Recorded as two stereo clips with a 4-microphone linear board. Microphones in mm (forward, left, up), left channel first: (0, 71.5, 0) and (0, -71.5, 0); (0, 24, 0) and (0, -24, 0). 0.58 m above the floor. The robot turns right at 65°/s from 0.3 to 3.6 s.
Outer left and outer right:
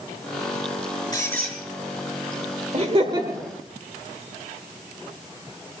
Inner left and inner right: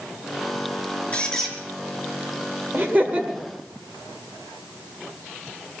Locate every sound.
1.1 s a squeak: 30° left (ahead or behind), 5.5 m; by 1.6 s centre (ahead or behind), 5.5 m
2.7 s laughter: 55° right, 1.6 m; by 3.5 s 5° right, 1.6 m